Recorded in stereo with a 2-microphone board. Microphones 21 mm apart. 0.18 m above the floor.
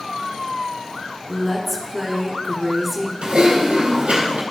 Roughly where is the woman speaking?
Centre.